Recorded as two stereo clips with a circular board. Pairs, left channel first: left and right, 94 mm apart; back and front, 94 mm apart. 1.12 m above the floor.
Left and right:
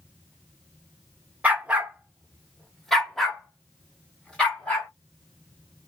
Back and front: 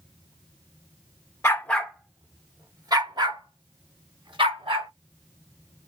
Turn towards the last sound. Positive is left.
turn(degrees=10)